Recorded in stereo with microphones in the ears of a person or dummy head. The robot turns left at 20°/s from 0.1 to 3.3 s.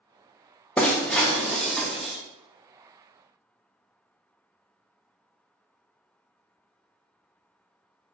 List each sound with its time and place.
0.8 s breaking glass: 10° left (ahead or behind), 0.6 m; by 2.2 s centre (ahead or behind), 0.6 m